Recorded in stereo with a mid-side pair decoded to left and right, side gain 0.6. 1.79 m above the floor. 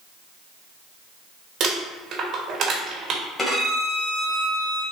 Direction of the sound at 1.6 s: 50° right.